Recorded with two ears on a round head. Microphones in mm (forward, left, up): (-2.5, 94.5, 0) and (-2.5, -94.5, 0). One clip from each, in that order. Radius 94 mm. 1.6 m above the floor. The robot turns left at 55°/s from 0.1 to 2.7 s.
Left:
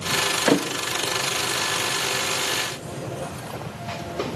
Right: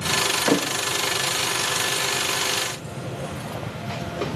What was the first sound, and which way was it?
A thud, 10° left (ahead or behind).